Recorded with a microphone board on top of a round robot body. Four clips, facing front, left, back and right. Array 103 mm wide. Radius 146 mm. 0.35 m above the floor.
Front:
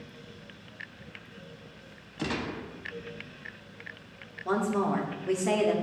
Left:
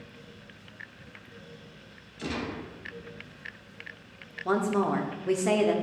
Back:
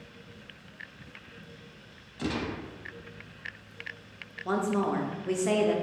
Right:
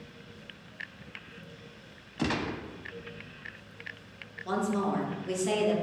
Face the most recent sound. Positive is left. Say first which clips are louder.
# left 4 dB, even
turn(degrees=85)